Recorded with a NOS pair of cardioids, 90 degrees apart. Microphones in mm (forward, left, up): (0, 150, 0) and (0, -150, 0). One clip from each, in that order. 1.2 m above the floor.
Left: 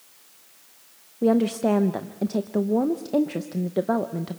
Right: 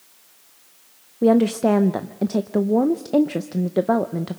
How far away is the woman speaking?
About 0.6 m.